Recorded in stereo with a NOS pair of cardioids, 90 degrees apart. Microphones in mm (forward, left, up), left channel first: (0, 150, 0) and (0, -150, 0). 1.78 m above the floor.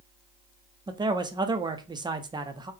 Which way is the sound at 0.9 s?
15° right.